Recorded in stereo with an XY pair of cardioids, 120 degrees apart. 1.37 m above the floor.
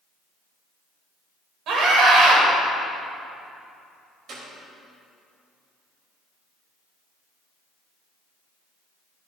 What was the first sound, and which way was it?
A scream, 70° right.